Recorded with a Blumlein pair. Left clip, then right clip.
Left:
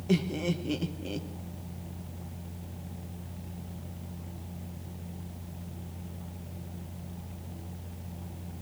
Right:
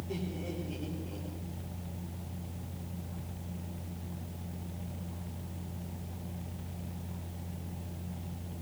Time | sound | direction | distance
0.1 | laughter | 50° left | 1.5 m